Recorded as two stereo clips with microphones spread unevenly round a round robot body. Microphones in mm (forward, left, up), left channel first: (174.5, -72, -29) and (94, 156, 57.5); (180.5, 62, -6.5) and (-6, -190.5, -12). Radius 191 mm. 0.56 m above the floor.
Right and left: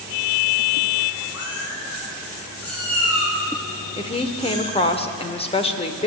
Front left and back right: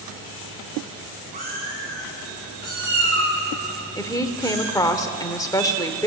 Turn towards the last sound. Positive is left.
turn(degrees=-25)